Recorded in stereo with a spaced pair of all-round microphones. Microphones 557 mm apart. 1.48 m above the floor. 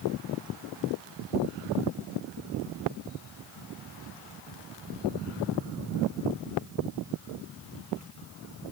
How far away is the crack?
I don't hear a crack.